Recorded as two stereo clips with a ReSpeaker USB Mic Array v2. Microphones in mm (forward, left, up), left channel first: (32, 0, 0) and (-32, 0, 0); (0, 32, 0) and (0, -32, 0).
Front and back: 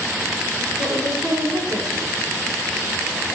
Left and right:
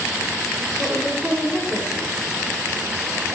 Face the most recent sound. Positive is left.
turn(degrees=-165)